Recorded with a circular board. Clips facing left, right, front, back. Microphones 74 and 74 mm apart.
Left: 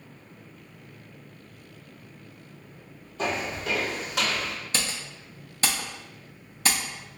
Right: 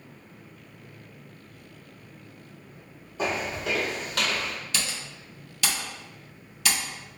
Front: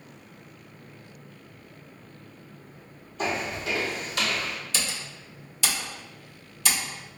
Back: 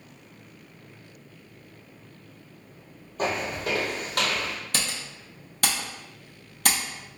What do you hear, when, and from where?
3.2 s footsteps: 165° right, 1.4 m; by 4.6 s 160° left, 1.9 m
4.7 s typing on a keyboard: 145° left, 0.9 m